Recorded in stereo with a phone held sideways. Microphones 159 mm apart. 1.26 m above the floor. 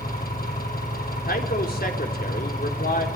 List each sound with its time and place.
0.0 s an engine running: 70° left (ahead or behind), 9.5 m
1.3 s a man speaking: 75° left (ahead or behind), 3.5 m